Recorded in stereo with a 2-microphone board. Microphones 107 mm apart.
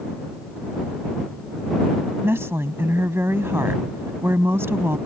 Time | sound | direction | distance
2.2 | a woman speaking | 25° right (ahead or behind) | ?